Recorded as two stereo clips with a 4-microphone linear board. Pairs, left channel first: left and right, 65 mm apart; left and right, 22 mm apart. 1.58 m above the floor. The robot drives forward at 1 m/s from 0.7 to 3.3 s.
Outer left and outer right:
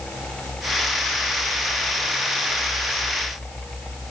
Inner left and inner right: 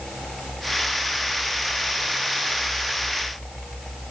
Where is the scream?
No scream in this recording.